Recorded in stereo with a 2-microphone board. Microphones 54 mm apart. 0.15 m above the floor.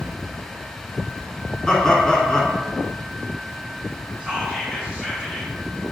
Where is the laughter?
15° left (ahead or behind), 1.2 m.